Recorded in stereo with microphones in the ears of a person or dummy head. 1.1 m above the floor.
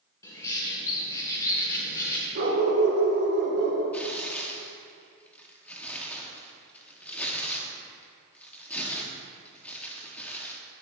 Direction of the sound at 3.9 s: 5° left (ahead or behind).